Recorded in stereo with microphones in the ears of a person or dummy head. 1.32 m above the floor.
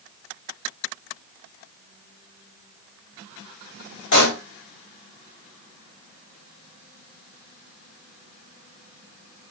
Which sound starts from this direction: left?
A pop, at 4.1 s.